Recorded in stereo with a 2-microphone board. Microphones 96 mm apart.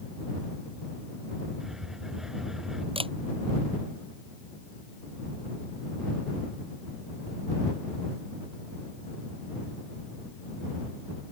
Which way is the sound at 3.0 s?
75° right (ahead or behind).